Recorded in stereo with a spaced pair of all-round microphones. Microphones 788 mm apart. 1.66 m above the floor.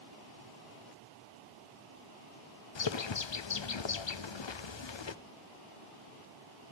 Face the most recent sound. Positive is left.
turn(degrees=40)  # may be behind; listen again after turning